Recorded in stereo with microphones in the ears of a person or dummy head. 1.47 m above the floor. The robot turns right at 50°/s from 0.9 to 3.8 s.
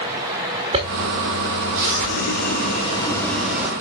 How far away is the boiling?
About 1.6 m.